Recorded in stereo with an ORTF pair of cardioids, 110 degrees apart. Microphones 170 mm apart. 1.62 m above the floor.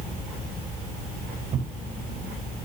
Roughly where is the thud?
Ahead right.